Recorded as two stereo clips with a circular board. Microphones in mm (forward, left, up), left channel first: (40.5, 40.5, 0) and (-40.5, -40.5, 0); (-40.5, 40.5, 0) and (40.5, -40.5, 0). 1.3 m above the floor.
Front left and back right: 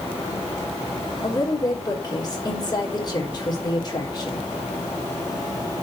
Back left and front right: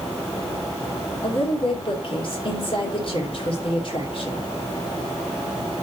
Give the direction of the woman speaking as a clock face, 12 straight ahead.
9 o'clock.